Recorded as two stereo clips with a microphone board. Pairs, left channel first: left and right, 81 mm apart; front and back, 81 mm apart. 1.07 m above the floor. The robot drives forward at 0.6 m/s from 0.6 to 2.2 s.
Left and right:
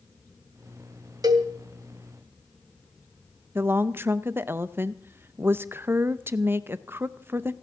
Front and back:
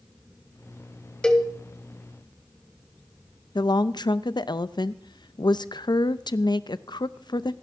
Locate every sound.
1.2 s a cowbell: 80° right, 1.3 m; by 1.5 s 85° right, 1.3 m
3.5 s a woman speaking: 25° right, 0.6 m